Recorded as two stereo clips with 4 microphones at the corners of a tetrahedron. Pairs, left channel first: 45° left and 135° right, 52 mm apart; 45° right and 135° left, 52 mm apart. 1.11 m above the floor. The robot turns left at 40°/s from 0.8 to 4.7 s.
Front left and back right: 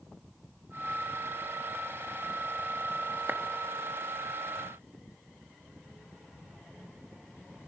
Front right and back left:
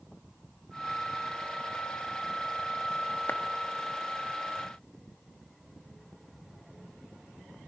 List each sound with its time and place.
3.3 s a clap: 85° right, 1.5 m; by 3.4 s 90° right, 1.5 m